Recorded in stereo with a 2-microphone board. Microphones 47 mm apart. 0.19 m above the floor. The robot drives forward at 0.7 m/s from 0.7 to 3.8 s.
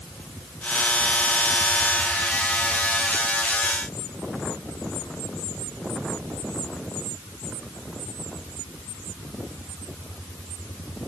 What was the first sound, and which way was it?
Only background noise.